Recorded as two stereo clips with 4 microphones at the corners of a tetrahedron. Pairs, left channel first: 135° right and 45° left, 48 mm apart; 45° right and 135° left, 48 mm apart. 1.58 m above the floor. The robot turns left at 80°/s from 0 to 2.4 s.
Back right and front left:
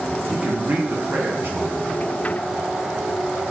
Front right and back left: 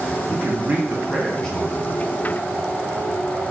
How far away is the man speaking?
About 0.7 m.